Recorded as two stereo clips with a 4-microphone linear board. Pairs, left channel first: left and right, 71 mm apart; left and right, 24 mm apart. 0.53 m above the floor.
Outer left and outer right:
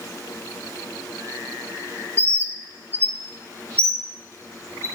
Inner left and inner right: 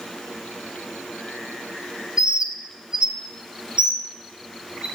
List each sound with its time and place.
2.2 s a bird: 30° right (ahead or behind), 0.7 m